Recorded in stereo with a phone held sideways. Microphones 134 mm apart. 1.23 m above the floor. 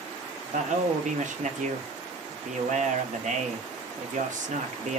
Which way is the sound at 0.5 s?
70° right (ahead or behind).